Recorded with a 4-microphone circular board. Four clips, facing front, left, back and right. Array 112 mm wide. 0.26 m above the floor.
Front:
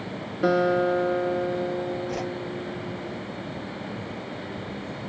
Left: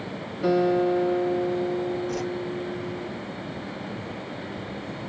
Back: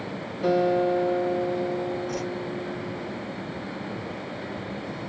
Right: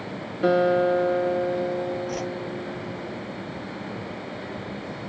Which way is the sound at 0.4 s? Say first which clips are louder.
Right 2 dB, even; 30° right.